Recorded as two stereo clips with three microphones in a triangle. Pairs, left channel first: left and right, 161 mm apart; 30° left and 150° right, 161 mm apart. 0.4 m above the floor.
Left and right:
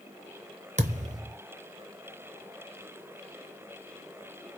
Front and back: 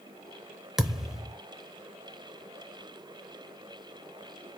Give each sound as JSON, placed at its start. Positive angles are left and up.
{"t": 0.8, "sound": "a thud", "azimuth_deg": -65, "distance_m": 0.8}